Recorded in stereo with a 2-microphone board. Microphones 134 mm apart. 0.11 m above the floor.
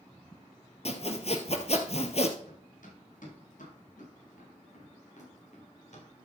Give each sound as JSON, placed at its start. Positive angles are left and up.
{"t": 0.8, "sound": "sawing", "side_deg": 55, "distance_m": 1.2}
{"t": 2.4, "sound": "running footsteps", "side_deg": 85, "distance_m": 7.5}